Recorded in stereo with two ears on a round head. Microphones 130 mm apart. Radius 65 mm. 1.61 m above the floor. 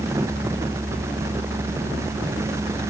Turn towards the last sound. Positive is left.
No sound to turn to.